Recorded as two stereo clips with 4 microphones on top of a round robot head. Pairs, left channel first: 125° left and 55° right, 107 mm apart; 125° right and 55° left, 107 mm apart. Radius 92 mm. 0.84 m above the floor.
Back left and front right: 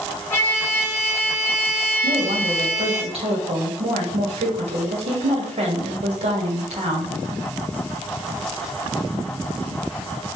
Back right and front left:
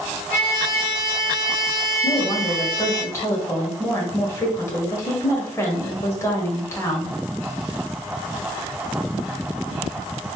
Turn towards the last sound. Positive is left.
turn(degrees=-60)